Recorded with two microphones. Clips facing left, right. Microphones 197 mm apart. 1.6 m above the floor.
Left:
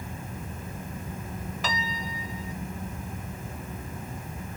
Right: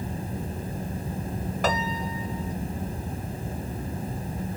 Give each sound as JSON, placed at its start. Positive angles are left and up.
{"t": 1.6, "sound": "a piano", "side_deg": -60}